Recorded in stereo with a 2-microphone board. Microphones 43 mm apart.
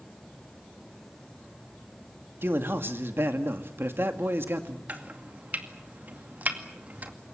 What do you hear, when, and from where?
2.4 s a man speaking: 60° right (ahead or behind), 2 m
4.9 s chopping: 40° right (ahead or behind), 2 m